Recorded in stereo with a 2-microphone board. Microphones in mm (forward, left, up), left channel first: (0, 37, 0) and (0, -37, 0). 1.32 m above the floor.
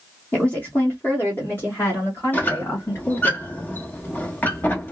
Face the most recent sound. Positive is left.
turn(degrees=25)  # may be behind; listen again after turning